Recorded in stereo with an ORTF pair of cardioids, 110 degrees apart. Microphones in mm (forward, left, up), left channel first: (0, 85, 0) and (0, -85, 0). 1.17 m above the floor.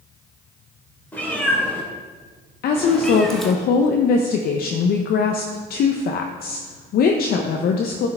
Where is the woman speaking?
60° left, 0.7 m.